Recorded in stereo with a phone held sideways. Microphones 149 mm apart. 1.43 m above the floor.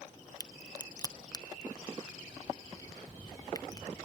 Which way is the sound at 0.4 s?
25° left (ahead or behind).